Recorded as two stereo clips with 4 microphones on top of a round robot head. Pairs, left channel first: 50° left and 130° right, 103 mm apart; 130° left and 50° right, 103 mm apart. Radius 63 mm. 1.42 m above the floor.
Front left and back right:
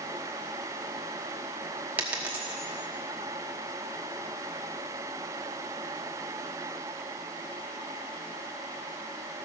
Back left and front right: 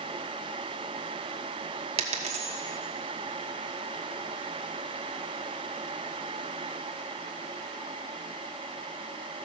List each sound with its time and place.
2.0 s a dropped coin: 60° right, 1.1 m